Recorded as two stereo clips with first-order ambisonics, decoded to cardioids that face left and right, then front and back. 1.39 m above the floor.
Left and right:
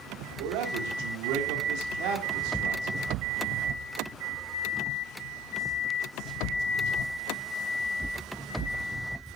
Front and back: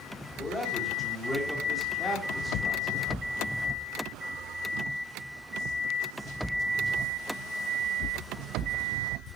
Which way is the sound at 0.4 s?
80° right.